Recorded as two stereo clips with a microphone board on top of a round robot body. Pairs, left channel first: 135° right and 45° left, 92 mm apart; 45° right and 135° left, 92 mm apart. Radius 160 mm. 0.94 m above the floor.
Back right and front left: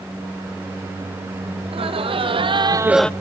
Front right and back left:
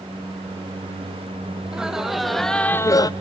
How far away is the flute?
I don't hear a flute.